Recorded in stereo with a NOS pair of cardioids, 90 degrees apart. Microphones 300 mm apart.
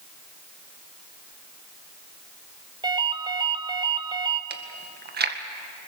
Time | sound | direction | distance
2.8 | a ringtone | 15° right | 2 m
4.5 | chewing | 35° right | 1.9 m